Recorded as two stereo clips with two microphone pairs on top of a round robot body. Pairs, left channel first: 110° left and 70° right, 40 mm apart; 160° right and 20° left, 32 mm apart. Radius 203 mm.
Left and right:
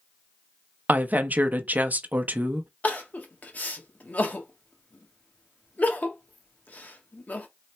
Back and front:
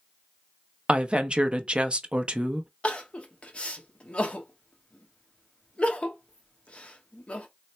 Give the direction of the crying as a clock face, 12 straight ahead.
7 o'clock.